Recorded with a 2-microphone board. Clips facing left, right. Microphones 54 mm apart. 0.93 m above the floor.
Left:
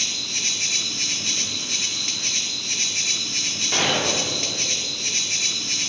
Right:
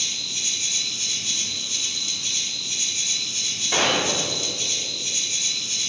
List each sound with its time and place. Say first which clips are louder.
0.0 s an insect: left 3 dB; 55° left (ahead or behind), 0.7 m
3.7 s a gunshot: right 1 dB; 5° right (ahead or behind), 2.5 m